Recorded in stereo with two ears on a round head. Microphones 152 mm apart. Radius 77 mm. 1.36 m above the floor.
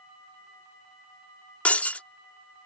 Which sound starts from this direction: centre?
Breaking glass, at 1.6 s.